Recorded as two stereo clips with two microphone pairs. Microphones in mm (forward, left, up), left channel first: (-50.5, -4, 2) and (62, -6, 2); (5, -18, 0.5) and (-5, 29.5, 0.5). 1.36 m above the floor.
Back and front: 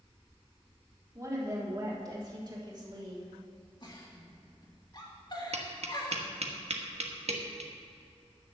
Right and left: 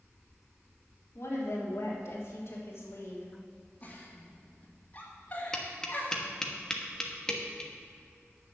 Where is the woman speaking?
60° right, 3.5 m; by 3.3 s 50° right, 2.5 m.